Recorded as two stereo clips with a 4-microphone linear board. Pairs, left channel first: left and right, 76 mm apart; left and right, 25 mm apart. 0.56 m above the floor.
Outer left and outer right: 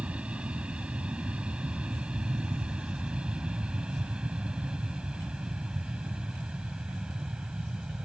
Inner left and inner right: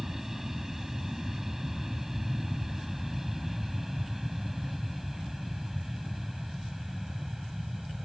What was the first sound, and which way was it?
An aircraft, 15° right (ahead or behind).